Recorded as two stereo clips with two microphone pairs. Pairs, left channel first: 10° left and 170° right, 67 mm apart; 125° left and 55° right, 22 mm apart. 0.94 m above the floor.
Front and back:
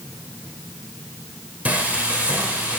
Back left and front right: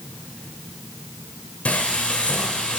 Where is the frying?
125° left, 3 m.